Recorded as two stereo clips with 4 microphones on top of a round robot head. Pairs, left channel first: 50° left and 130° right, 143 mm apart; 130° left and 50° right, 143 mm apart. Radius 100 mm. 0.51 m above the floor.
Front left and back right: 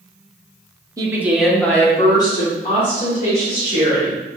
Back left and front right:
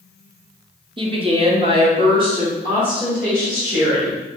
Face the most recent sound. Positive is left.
turn(degrees=15)